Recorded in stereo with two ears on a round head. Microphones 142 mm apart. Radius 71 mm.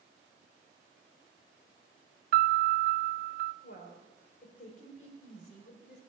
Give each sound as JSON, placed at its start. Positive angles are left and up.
{"t": 2.3, "sound": "a piano", "side_deg": -65, "distance_m": 0.6}
{"t": 3.6, "sound": "a woman speaking", "side_deg": 50, "distance_m": 3.5}